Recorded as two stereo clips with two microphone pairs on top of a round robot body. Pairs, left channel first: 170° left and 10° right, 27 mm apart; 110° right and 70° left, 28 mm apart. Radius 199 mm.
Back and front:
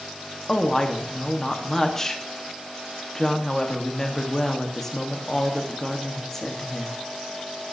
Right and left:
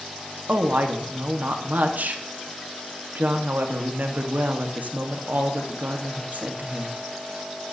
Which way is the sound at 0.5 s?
95° left.